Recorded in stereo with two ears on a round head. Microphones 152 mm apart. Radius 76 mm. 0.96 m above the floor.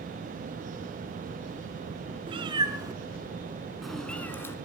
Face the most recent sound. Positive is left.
turn(degrees=15)  # may be behind; listen again after turning